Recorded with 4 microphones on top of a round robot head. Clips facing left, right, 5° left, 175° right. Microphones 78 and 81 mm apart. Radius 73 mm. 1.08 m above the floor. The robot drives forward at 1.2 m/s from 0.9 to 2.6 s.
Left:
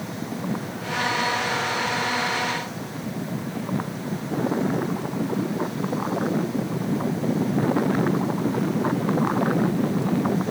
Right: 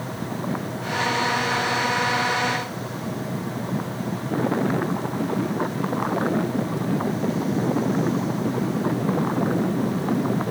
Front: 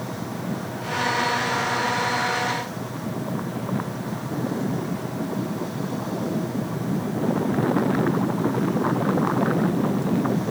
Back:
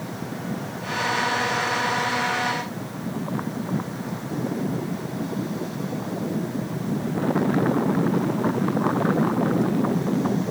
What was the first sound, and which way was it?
Only background noise.